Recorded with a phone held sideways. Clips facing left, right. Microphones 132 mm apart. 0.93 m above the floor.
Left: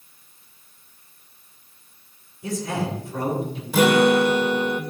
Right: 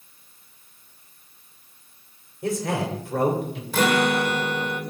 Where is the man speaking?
80° right, 3 m.